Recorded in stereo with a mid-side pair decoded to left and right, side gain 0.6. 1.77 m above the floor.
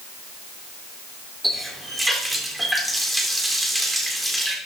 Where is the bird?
No bird in this recording.